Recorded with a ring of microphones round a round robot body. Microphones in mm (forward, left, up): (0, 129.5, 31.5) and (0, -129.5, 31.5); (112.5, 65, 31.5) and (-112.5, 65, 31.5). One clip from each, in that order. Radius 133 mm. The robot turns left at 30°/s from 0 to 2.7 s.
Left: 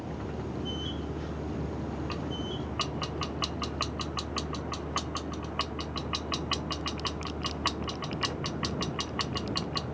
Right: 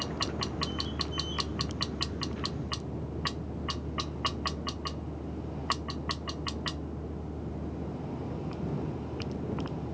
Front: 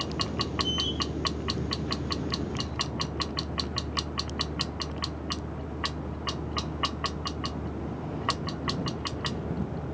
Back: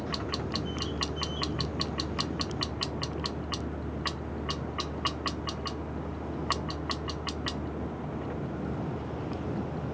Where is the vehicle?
160° right; by 9.9 s 120° left.